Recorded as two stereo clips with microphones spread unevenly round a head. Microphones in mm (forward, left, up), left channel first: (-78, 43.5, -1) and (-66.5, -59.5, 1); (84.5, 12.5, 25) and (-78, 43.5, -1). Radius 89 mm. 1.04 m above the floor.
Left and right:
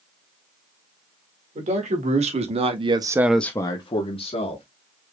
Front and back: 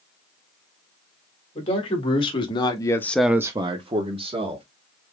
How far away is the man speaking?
About 2.0 m.